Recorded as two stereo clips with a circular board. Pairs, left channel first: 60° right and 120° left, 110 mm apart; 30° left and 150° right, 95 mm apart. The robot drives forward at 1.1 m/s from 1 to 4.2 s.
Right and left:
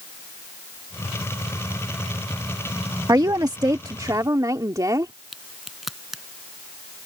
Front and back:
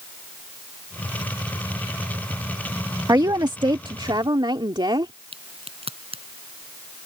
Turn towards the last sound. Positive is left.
turn(degrees=-155)